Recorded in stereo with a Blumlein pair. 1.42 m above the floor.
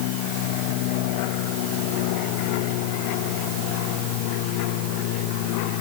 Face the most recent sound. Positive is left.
No sound to turn to.